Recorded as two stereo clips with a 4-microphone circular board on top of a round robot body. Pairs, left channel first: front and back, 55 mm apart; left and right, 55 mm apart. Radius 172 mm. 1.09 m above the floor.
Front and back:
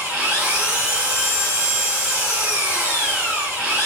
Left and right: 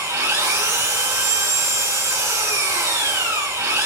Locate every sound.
0.0 s an engine running: 105° right, 3 m